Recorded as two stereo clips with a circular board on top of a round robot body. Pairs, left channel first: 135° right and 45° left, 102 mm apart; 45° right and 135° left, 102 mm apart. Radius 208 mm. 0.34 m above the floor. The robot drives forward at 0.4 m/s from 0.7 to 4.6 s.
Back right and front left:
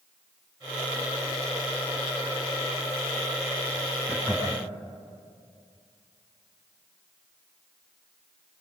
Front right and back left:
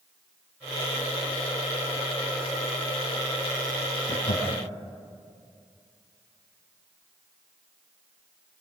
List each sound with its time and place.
4.1 s laughter: 30° right, 5.5 m